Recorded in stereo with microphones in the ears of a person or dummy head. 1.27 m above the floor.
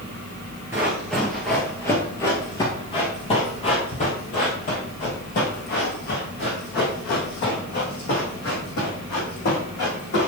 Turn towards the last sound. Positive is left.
turn(degrees=60)  # may be behind; listen again after turning